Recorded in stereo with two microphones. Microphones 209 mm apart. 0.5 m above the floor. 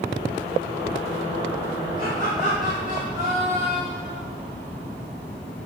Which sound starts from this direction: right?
Laughter, at 2.0 s.